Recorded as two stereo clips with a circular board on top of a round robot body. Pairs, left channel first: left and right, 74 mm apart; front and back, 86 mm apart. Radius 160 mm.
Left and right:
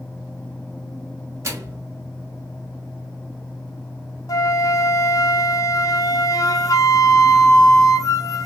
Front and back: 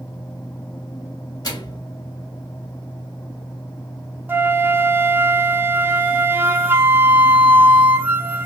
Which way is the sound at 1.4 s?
40° right.